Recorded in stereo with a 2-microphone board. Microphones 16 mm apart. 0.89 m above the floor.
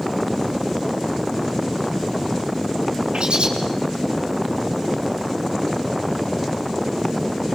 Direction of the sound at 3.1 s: 65° right (ahead or behind).